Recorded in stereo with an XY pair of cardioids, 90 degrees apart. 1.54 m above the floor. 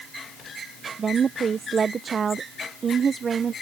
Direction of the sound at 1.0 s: 50° right.